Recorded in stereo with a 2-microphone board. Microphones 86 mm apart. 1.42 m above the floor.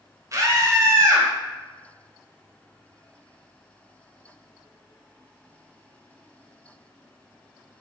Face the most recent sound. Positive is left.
turn(degrees=-40)  # may be behind; listen again after turning